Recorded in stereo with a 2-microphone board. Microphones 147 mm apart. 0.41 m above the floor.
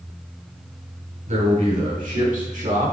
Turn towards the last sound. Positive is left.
turn(degrees=-70)  # may be behind; listen again after turning